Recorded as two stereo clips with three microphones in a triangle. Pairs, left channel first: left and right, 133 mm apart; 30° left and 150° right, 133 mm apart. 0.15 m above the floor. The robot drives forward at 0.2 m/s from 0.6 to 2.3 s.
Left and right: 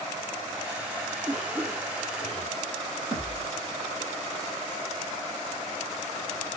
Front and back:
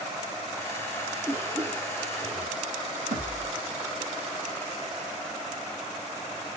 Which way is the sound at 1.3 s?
155° right.